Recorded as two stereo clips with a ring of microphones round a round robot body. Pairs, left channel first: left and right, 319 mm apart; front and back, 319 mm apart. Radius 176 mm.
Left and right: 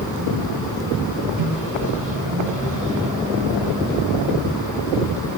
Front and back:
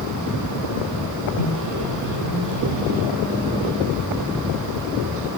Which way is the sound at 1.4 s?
160° right.